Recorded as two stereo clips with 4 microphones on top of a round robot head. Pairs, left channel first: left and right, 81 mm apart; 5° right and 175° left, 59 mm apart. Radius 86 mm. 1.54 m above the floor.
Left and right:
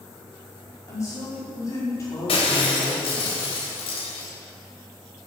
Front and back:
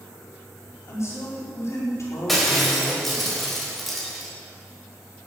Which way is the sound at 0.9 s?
30° left.